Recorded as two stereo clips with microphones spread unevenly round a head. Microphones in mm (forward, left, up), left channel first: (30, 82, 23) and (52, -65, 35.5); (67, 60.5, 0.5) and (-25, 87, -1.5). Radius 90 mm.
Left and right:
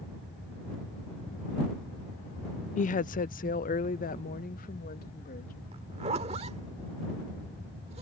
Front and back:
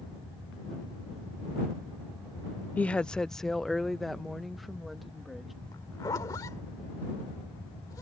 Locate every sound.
2.8 s a woman speaking: 60° left; by 5.5 s 75° left
5.7 s a zipper: 60° right